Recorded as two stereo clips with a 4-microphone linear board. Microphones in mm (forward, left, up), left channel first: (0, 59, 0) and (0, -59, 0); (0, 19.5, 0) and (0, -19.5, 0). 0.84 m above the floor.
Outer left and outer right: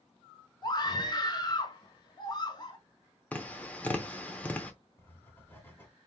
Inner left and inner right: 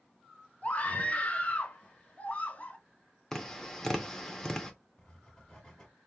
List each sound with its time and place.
0.6 s a scream: 35° left (ahead or behind), 1.0 m
3.3 s tapping: 15° left (ahead or behind), 0.8 m
5.0 s writing: 15° left (ahead or behind), 1.5 m